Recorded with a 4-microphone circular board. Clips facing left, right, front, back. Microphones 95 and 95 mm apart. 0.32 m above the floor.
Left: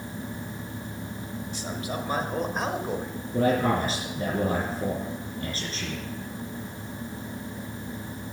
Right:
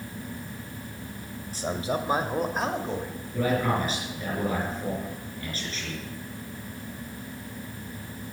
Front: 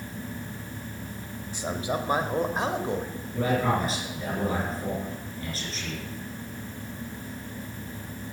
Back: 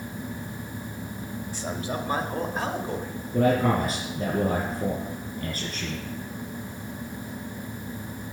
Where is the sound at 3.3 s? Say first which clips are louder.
Left 2 dB, back 4 dB; 140° left, 5.5 m.